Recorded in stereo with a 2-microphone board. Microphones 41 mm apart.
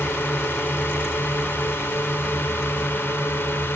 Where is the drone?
70° left (ahead or behind).